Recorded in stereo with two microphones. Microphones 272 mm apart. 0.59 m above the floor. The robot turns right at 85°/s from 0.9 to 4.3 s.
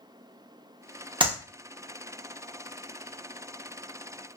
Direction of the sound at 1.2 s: 20° right (ahead or behind).